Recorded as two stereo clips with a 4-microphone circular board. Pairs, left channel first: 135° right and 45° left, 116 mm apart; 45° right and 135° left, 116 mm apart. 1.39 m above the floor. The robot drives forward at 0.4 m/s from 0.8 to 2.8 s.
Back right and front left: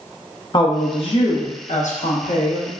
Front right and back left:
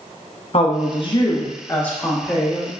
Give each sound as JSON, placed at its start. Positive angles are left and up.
{"t": 0.5, "sound": "a woman speaking", "azimuth_deg": -85, "distance_m": 0.6}